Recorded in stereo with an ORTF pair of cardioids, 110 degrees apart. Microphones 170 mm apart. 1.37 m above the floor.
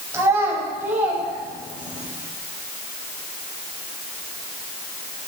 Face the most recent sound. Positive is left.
turn(degrees=-5)